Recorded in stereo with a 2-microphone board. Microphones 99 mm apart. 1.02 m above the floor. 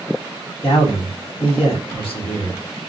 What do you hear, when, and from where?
0.6 s a man speaking: 70° left (ahead or behind), 1.0 m